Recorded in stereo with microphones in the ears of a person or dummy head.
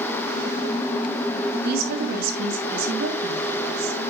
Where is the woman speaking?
60° right (ahead or behind), 3 m.